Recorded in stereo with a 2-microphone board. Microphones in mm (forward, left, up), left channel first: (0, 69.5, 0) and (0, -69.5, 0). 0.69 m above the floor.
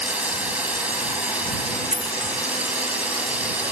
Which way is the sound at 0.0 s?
10° right (ahead or behind).